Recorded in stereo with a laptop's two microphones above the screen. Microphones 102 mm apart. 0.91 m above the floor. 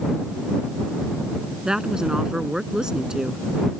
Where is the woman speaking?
5° right (ahead or behind).